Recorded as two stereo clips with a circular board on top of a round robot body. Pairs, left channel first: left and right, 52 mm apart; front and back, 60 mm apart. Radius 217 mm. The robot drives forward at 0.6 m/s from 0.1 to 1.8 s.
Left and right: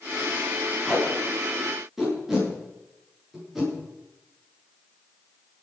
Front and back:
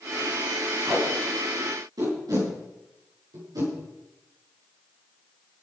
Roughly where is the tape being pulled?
Behind.